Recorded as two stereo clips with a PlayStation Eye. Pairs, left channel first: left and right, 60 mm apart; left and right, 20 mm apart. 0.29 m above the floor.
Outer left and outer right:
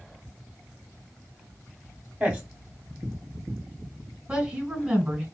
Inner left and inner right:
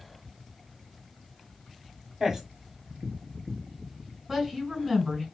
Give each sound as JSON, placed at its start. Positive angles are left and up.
{"t": 2.2, "sound": "a man speaking", "side_deg": -10, "distance_m": 1.3}
{"t": 4.3, "sound": "a woman speaking", "side_deg": -15, "distance_m": 1.5}